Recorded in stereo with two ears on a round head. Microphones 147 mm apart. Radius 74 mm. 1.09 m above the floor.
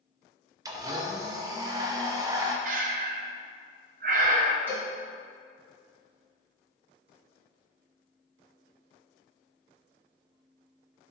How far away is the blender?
About 0.8 m.